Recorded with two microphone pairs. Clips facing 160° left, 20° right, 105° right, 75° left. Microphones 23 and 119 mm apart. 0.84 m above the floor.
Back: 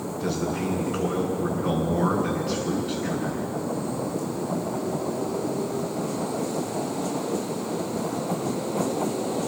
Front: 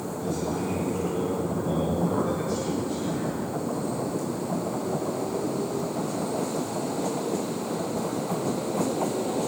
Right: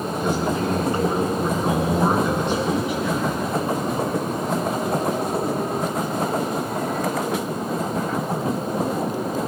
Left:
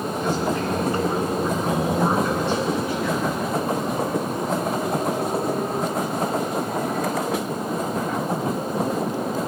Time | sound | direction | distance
0.2 | a man speaking | 170° right | 5.5 m